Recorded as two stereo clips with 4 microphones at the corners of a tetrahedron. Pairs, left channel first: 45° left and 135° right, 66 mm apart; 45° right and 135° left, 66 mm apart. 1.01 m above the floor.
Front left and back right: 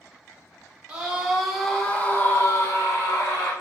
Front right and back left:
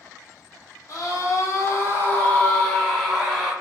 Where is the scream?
65° right, 0.9 m; by 3.5 s 45° left, 1.0 m.